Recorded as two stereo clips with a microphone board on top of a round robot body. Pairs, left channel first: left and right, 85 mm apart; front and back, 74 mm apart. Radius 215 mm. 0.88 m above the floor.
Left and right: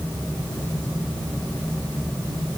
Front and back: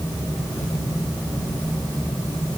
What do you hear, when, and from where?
Only background noise.